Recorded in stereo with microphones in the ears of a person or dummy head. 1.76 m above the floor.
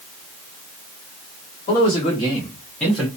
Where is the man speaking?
35° left (ahead or behind), 1.2 m; by 3.1 s 5° right (ahead or behind), 0.7 m.